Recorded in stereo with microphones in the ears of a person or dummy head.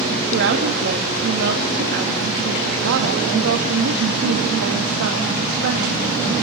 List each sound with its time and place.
0.3 s a woman speaking: 70° right (ahead or behind), 2.5 m